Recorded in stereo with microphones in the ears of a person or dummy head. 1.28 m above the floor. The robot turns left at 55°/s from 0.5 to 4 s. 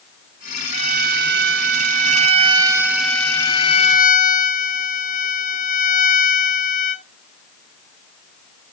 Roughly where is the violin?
Ahead right.